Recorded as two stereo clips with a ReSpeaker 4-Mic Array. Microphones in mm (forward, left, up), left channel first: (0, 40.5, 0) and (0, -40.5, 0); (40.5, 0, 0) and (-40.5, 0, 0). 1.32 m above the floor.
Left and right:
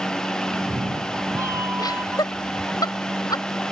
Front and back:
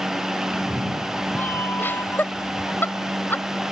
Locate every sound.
0.5 s a cat meowing: 125° right; by 2.8 s 30° right
1.8 s laughter: 65° left